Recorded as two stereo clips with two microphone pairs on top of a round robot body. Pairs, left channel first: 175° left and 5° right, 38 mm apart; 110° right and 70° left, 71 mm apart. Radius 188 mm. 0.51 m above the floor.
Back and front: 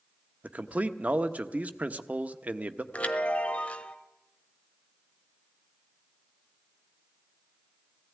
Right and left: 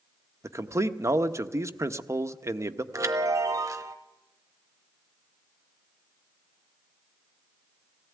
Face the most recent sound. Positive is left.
turn(degrees=115)